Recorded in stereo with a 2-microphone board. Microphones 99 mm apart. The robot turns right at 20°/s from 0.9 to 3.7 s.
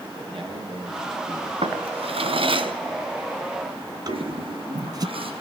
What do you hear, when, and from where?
0.2 s a man speaking: 55° right (ahead or behind), 9 m; by 1.5 s 45° right (ahead or behind), 9 m
1.6 s a drawer: 80° right, 2.5 m; by 5.1 s 40° right (ahead or behind), 2.5 m
4.1 s a toilet flushing: 65° right (ahead or behind), 5.5 m